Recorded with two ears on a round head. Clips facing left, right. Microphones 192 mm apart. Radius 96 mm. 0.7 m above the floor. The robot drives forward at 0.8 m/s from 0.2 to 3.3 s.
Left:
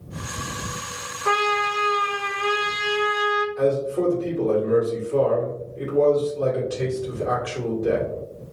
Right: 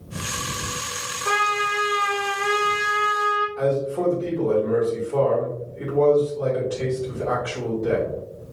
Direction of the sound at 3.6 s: 15° left (ahead or behind).